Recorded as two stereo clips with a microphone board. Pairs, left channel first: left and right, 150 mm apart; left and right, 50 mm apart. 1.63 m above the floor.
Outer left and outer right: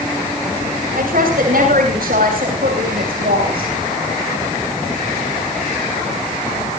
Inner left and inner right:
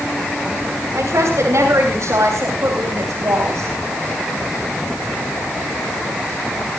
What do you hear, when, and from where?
0.9 s a woman speaking: 75° right (ahead or behind), 6 m